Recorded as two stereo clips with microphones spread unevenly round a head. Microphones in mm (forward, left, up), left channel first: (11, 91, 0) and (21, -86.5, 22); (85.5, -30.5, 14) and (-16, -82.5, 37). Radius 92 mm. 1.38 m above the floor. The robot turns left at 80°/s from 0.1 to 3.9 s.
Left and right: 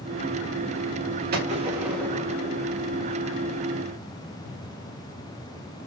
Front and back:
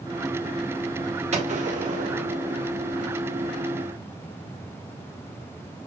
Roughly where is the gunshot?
Behind right.